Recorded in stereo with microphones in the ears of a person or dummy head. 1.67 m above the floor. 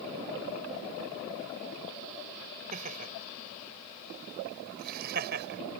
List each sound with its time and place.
2.7 s laughter: 40° right (ahead or behind); by 5.6 s 55° right (ahead or behind)